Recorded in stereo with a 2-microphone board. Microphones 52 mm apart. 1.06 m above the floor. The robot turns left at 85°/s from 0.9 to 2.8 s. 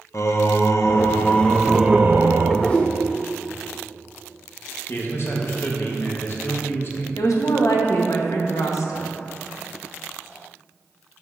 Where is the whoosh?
35° left (ahead or behind), 1.3 m; by 2.9 s 20° left (ahead or behind), 1.3 m.